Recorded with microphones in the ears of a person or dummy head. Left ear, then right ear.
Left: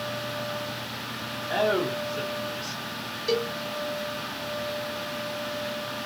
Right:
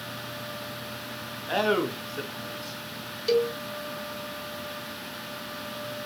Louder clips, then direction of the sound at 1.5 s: Even; 50° right (ahead or behind).